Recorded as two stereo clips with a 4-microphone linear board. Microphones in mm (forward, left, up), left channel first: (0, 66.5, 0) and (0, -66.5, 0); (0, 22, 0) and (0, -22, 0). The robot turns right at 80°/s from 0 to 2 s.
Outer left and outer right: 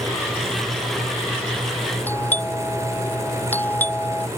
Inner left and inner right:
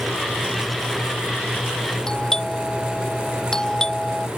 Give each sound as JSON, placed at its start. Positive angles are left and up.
{"t": 2.1, "sound": "a doorbell", "side_deg": 15}